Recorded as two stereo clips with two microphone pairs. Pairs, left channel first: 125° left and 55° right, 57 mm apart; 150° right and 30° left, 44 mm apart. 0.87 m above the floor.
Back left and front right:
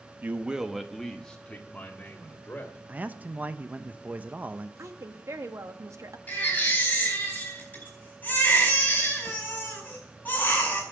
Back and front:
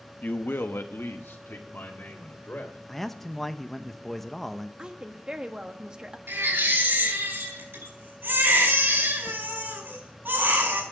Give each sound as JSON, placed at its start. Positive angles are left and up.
{"t": 0.2, "sound": "a man speaking", "azimuth_deg": -110, "distance_m": 0.8}
{"t": 2.9, "sound": "a man speaking", "azimuth_deg": -65, "distance_m": 0.6}
{"t": 4.8, "sound": "a woman speaking", "azimuth_deg": -35, "distance_m": 1.0}
{"t": 6.3, "sound": "a baby crying", "azimuth_deg": 60, "distance_m": 4.5}